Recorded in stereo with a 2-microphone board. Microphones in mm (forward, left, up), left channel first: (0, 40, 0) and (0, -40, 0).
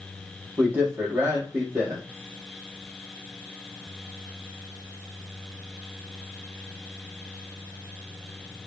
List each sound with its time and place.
0.6 s a man speaking: 30° right (ahead or behind), 5 m